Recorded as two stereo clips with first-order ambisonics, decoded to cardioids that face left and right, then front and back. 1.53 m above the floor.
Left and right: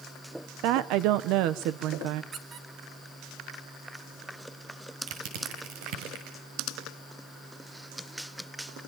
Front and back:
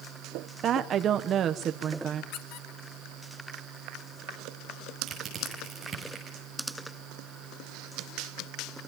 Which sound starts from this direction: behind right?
A woman speaking, at 0.6 s.